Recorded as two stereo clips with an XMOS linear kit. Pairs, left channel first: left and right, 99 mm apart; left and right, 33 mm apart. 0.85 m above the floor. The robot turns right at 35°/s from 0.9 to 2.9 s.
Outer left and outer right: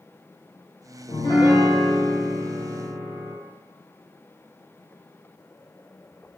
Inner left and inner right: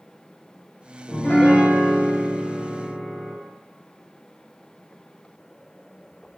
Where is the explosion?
No explosion in this recording.